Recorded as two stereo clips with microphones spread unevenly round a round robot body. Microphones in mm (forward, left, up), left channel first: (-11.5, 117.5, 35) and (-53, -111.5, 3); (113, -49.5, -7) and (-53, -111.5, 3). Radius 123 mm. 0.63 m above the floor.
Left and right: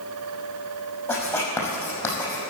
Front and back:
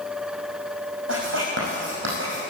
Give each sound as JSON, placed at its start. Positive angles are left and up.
{"t": 1.1, "sound": "writing", "azimuth_deg": 160, "distance_m": 5.0}